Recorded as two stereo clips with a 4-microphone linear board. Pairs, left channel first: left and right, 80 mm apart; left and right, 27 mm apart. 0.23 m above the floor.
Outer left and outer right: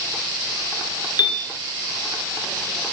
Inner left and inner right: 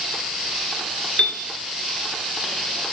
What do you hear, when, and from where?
1.2 s a piano: 60° left (ahead or behind), 2 m